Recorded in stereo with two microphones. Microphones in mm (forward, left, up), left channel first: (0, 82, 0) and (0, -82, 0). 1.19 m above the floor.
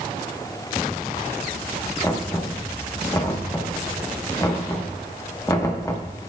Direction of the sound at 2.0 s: 20° left (ahead or behind).